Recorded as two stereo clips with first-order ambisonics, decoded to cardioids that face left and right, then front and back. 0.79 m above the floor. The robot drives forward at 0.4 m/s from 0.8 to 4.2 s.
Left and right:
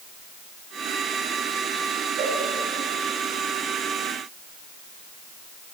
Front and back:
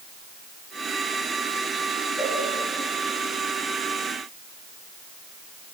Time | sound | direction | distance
2.2 | a cowbell | 65° right | 10 m